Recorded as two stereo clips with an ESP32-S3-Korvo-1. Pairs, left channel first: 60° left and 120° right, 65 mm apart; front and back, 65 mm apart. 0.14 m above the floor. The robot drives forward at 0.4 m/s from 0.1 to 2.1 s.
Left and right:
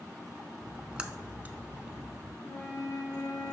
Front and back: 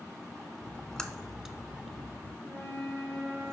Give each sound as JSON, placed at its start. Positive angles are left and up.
{"t": 0.6, "sound": "a splash", "azimuth_deg": -45, "distance_m": 0.7}
{"t": 2.4, "sound": "a flute", "azimuth_deg": 60, "distance_m": 2.5}